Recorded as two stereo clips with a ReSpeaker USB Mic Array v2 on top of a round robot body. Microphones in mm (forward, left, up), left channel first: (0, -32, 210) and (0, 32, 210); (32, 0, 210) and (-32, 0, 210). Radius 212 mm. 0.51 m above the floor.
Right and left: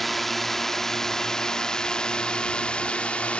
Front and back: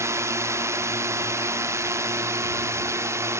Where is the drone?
175° right; by 3.4 s 155° right.